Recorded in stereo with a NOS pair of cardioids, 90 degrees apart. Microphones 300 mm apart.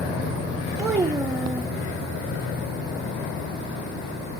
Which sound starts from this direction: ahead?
A child speaking, at 0.8 s.